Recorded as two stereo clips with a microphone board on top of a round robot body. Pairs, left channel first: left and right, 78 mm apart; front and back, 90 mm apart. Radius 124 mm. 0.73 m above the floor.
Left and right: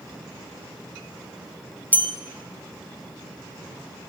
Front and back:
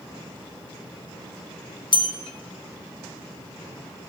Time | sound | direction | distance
1.9 | a bell | 20° left | 2 m